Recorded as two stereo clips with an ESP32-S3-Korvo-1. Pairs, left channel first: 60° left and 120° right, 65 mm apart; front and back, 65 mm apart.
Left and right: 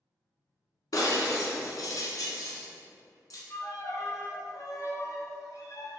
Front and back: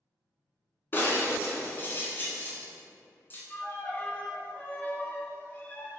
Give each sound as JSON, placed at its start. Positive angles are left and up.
{"t": 0.9, "sound": "breaking glass", "azimuth_deg": 55, "distance_m": 1.7}
{"t": 3.5, "sound": "a violin", "azimuth_deg": 55, "distance_m": 0.9}